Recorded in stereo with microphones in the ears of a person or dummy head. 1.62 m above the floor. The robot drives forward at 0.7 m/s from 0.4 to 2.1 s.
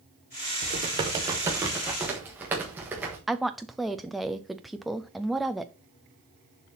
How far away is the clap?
No clap in this recording.